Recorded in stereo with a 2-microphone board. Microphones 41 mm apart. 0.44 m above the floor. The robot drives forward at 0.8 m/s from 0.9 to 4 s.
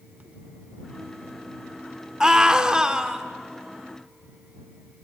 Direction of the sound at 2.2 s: 20° right (ahead or behind).